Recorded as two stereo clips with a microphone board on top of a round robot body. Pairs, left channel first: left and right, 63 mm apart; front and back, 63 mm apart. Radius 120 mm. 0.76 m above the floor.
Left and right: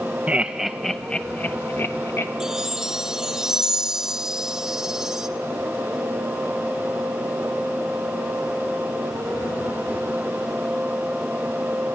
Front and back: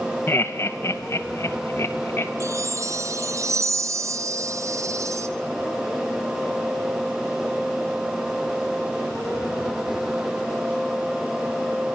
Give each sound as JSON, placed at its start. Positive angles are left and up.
{"t": 0.3, "sound": "laughter", "azimuth_deg": -30, "distance_m": 0.7}
{"t": 2.4, "sound": "a chime", "azimuth_deg": -170, "distance_m": 0.6}